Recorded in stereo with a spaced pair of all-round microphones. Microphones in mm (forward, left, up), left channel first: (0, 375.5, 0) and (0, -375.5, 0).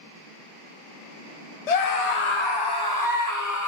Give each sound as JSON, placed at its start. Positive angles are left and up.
{"t": 1.7, "sound": "a scream", "side_deg": 60, "distance_m": 0.7}